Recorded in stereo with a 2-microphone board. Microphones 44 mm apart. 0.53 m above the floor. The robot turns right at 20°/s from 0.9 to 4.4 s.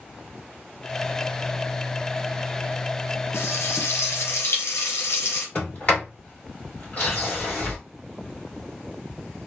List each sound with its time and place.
3.3 s frying: 75° left (ahead or behind), 1.4 m
5.5 s a sliding door: 35° left (ahead or behind), 2 m